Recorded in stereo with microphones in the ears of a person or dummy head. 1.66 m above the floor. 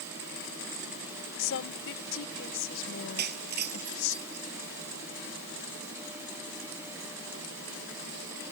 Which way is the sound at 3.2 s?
55° right (ahead or behind).